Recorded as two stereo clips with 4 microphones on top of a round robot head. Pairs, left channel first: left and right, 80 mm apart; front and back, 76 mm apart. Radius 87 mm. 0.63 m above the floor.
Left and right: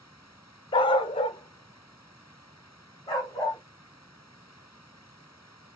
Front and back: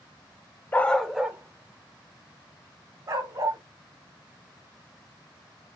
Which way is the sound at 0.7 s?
70° left.